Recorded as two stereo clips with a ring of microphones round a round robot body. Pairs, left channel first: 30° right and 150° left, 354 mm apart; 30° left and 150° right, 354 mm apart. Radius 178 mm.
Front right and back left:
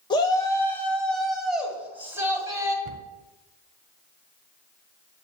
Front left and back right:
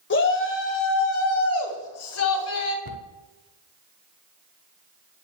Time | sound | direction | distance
0.1 | a shout | 35° left | 1.7 m
2.9 | a cupboard door | straight behind | 0.8 m